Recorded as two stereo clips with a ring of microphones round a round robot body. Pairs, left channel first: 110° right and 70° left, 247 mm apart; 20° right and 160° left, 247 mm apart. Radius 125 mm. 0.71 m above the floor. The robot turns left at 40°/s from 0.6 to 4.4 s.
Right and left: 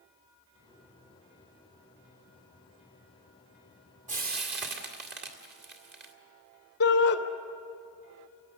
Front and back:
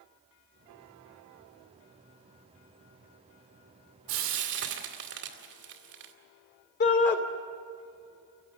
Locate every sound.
4.1 s frying: 130° left, 2 m; by 6.1 s 115° left, 2 m
6.8 s a shout: 65° right, 2.5 m